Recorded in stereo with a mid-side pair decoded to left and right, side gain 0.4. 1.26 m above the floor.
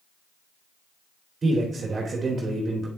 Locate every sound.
1.4 s a man speaking: 45° right, 3 m